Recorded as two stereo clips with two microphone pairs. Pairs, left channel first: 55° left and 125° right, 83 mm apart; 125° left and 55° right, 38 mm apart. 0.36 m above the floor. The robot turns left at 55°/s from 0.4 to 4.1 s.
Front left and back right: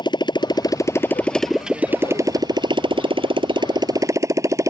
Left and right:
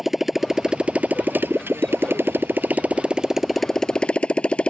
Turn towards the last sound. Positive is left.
turn(degrees=-175)